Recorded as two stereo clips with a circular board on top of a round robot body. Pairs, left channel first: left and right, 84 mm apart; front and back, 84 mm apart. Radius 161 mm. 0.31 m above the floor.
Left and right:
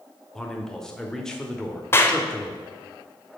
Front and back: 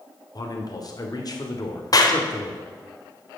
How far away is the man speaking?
About 1.5 m.